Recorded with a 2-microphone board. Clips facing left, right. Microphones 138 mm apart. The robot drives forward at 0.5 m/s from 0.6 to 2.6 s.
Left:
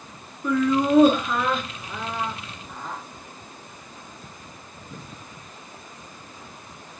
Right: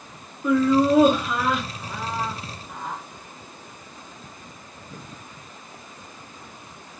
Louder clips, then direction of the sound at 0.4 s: Right 3 dB; 5° right (ahead or behind).